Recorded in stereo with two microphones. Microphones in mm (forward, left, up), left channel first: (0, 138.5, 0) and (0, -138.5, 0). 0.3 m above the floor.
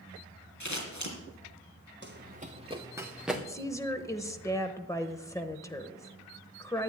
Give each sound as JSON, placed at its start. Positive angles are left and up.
{"t": 0.6, "sound": "scissors", "side_deg": 75, "distance_m": 3.5}
{"t": 2.0, "sound": "running footsteps", "side_deg": -40, "distance_m": 1.9}
{"t": 3.5, "sound": "a woman speaking", "side_deg": 10, "distance_m": 1.0}